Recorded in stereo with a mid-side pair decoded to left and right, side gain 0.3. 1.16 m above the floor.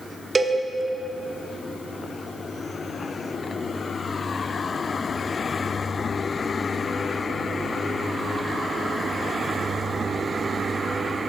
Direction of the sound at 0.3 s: 35° right.